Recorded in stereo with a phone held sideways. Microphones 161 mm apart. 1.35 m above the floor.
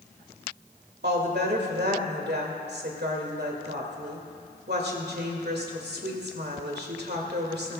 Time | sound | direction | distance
1.0 | a woman speaking | 80° right | 2.0 m